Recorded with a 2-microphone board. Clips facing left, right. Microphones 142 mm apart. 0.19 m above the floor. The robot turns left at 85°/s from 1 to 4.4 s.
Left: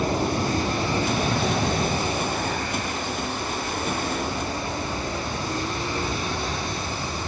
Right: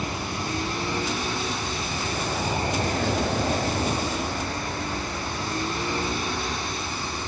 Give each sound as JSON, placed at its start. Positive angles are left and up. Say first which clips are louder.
{"t": 0.0, "sound": "an aircraft", "louder": "left 7 dB", "side_deg": 40}